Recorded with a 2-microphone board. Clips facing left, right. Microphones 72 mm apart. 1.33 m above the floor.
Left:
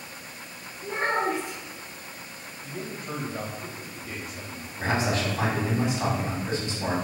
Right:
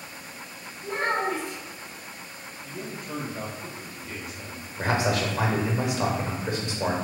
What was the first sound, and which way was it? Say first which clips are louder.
A child speaking: even; 15° left (ahead or behind).